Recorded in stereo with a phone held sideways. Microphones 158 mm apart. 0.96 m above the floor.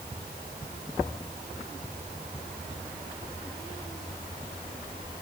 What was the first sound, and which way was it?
Only background noise.